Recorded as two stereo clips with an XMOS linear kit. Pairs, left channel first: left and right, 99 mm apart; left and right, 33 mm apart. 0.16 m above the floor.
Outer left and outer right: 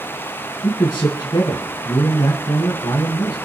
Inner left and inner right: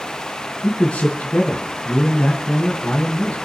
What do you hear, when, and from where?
0.6 s a man speaking: 45° left (ahead or behind), 2 m